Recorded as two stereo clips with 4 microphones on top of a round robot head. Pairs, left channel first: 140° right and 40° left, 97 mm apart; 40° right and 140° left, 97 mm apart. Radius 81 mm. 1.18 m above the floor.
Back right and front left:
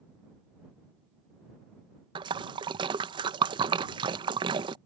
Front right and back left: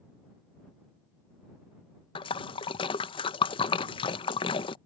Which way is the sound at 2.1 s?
Straight ahead.